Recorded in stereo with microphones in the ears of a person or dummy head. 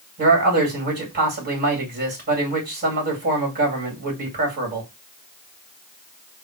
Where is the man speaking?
45° right (ahead or behind), 2 m.